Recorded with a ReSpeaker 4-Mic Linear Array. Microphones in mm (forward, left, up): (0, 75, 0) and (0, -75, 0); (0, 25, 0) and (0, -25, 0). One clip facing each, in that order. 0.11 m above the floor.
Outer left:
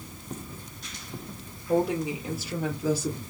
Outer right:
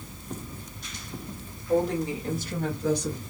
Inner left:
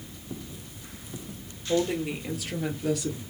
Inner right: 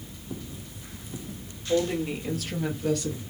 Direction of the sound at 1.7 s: 10° left (ahead or behind).